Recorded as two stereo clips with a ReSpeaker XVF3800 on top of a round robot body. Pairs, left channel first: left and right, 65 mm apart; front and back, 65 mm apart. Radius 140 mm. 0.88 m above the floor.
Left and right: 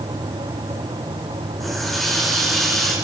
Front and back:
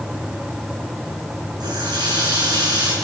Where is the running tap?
175° left, 8 m.